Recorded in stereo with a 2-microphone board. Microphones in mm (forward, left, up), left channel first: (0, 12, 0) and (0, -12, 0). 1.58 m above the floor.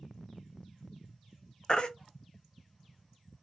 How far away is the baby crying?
About 0.7 m.